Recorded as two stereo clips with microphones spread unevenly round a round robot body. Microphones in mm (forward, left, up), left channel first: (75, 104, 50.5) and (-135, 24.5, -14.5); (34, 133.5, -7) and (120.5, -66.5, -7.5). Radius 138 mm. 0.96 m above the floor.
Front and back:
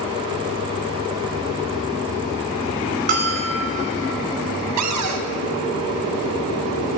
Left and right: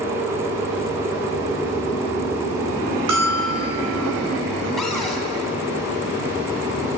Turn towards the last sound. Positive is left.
turn(degrees=-160)